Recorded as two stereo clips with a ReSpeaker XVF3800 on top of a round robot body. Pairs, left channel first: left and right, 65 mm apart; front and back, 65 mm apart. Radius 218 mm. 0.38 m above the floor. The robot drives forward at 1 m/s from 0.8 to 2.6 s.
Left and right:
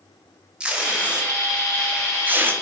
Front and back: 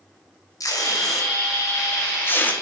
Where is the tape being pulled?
15° right, 2.5 m; by 2.5 s 50° right, 1.6 m.